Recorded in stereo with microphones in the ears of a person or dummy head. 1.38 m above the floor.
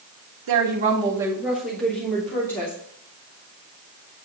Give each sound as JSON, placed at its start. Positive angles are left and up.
{"t": 0.5, "sound": "a woman speaking", "side_deg": -70, "distance_m": 0.8}